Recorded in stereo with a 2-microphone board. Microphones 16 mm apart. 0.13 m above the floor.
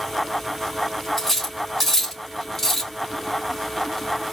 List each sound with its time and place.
1.2 s cutlery clinking: 20° left (ahead or behind), 1.3 m